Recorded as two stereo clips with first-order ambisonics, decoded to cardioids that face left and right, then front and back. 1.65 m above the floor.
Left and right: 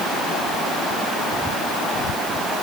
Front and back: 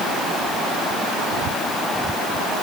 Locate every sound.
Only background noise.